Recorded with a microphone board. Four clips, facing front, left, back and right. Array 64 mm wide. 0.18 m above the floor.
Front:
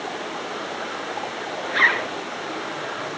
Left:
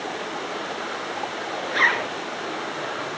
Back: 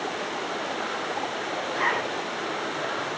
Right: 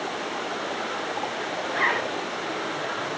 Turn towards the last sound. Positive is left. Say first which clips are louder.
# left 4 dB, front 7 dB
turn(degrees=25)